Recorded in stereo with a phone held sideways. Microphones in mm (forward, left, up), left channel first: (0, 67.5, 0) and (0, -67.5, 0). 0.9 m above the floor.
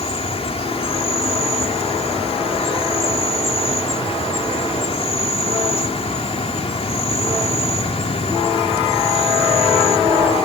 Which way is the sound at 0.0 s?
50° left (ahead or behind).